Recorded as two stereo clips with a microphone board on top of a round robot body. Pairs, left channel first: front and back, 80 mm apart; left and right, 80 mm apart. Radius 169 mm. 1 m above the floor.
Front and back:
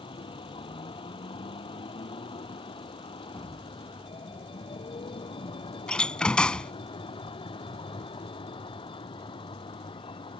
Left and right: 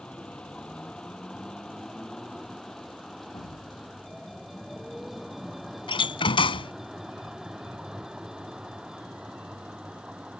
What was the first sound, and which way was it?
A vehicle, 10° left.